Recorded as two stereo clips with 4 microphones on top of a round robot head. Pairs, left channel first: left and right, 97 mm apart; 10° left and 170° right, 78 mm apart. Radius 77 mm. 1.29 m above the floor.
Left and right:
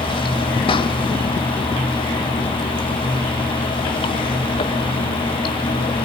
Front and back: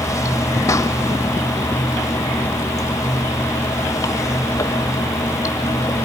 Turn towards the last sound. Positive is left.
turn(degrees=60)